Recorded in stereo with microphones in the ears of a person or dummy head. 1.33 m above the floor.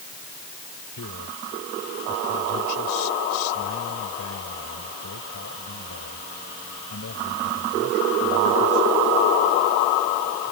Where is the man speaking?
70° left (ahead or behind); by 8.9 s 55° left (ahead or behind).